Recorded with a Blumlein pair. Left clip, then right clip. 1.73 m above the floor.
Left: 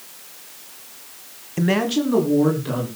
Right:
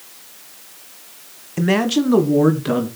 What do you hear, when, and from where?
1.6 s a man speaking: 5° right, 1.2 m; by 2.9 s 25° right, 3 m